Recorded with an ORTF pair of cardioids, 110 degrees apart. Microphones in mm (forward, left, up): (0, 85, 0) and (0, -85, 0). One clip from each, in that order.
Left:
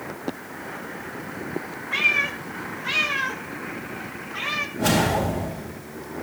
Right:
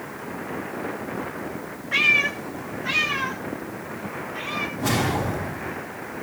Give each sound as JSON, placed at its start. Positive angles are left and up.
{"t": 1.9, "sound": "a cat meowing", "azimuth_deg": -15, "distance_m": 3.5}
{"t": 4.8, "sound": "a whoosh", "azimuth_deg": 60, "distance_m": 8.5}